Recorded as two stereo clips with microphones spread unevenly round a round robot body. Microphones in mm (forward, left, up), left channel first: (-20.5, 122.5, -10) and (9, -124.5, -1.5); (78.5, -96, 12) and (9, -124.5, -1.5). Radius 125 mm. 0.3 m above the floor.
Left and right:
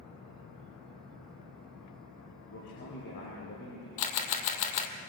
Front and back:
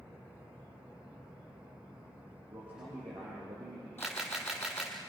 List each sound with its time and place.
2.5 s a man speaking: 140° left, 7 m
4.0 s a camera shutter: 100° left, 2.5 m